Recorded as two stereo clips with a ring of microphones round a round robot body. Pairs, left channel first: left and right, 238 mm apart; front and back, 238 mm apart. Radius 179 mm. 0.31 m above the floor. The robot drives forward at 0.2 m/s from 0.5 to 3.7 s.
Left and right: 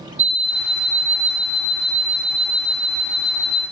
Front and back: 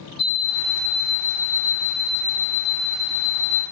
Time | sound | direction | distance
0.2 | an alarm clock | 50° right | 1.2 m